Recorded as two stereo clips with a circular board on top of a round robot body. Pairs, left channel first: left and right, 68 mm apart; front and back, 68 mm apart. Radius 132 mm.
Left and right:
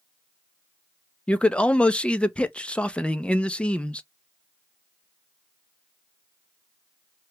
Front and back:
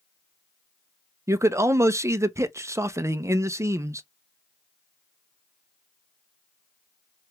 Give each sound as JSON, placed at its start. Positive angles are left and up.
{"t": 1.3, "sound": "a man speaking", "azimuth_deg": 160, "distance_m": 0.7}